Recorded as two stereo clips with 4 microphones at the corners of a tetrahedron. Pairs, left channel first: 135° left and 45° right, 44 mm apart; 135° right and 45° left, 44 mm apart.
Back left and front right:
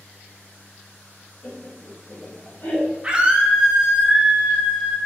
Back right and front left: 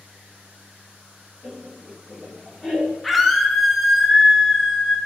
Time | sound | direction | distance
1.4 | laughter | straight behind | 1.3 m
3.0 | a scream | 50° right | 0.7 m